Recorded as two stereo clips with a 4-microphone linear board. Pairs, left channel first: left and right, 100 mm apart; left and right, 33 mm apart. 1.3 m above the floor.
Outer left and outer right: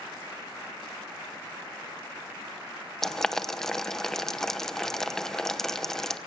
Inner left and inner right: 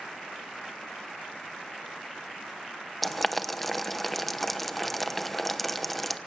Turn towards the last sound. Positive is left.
turn(degrees=5)  # may be behind; listen again after turning